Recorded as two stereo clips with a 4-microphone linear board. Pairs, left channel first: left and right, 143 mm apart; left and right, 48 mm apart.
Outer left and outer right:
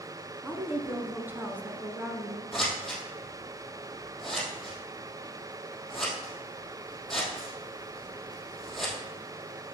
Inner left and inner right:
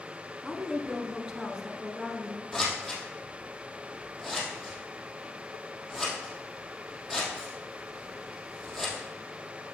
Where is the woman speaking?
15° right (ahead or behind), 1.1 m.